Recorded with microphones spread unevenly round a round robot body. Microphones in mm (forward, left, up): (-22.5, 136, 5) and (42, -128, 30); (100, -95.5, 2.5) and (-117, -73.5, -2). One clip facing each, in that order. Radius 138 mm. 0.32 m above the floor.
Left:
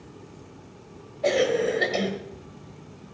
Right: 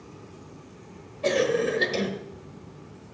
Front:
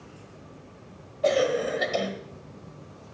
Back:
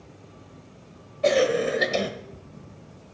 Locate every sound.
1.2 s a cough: 145° right, 1.3 m